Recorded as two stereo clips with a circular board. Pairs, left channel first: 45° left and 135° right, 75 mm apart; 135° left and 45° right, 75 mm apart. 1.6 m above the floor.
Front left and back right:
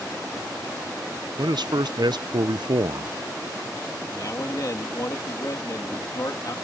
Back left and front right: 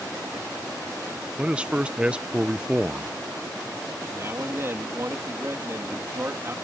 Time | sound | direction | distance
1.4 | a man speaking | 120° right | ?
4.1 | a man speaking | 5° left | ?